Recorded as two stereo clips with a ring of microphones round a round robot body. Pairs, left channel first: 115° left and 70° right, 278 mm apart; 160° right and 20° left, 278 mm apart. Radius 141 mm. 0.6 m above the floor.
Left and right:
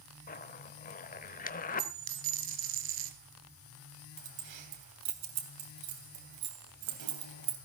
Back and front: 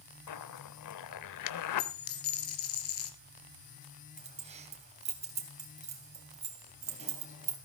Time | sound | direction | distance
0.3 | a zipper | 175° left | 0.8 m
1.8 | a dropped coin | 115° right | 2.5 m
4.2 | keys jangling | 45° right | 3.5 m